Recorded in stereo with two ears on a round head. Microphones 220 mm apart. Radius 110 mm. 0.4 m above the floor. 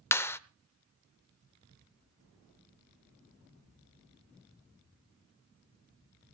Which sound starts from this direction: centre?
A clap, at 0.1 s.